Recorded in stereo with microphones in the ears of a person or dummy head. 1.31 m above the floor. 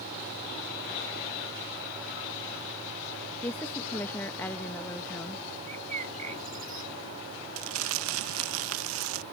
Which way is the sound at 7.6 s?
85° right.